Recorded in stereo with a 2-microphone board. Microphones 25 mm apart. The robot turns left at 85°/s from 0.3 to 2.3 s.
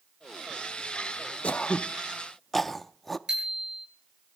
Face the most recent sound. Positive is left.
turn(degrees=-25)  # may be behind; listen again after turning